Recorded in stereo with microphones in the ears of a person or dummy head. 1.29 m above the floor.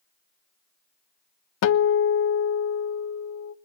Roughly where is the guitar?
Left.